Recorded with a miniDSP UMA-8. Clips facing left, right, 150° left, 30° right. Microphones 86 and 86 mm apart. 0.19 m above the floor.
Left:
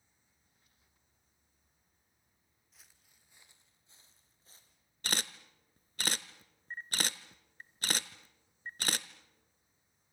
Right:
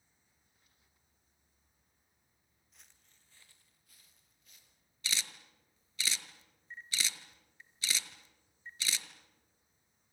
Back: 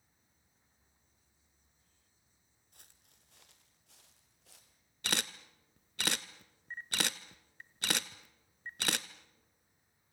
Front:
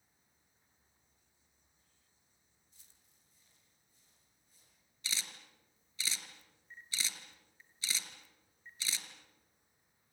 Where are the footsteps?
Straight behind, 2.5 m; by 4.8 s 145° left, 4.5 m.